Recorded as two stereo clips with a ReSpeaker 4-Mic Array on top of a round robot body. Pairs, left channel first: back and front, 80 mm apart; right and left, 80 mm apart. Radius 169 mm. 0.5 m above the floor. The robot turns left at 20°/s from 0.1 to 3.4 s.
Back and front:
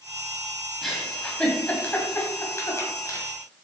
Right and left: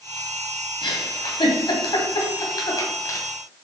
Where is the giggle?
90° right, 2 m; by 3.2 s 140° right, 2 m.